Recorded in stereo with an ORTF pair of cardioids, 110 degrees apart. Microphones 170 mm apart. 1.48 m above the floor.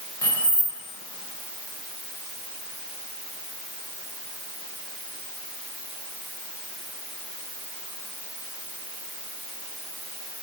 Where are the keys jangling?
20° left, 1.0 m.